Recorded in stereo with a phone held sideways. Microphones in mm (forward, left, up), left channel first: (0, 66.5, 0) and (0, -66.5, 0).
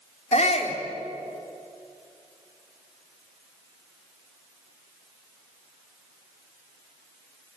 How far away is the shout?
About 4 m.